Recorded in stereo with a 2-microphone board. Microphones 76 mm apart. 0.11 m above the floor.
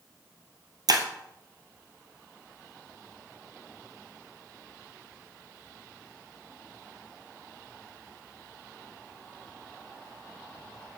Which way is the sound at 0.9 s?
60° right (ahead or behind).